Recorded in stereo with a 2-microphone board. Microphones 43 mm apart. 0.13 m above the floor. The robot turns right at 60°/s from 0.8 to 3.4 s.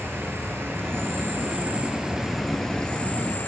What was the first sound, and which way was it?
An insect, 100° right.